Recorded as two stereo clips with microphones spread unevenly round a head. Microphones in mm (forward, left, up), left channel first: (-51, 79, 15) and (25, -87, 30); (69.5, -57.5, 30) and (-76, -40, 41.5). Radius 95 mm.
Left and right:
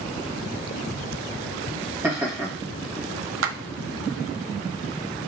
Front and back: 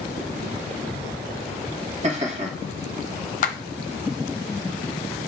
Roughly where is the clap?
Ahead right.